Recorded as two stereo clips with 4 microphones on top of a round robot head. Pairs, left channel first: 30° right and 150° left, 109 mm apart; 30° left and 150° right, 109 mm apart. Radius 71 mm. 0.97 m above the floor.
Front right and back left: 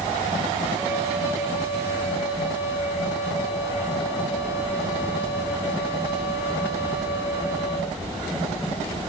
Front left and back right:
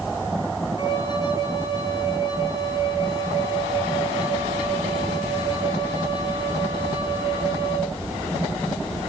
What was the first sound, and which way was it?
A flute, 80° left.